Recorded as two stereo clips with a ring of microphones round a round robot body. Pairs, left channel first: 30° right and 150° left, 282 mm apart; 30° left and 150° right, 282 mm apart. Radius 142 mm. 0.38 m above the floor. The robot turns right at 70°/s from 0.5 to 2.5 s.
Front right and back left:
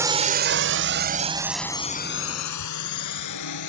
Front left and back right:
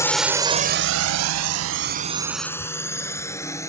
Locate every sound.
0.0 s a drone: 90° left; by 3.7 s 50° right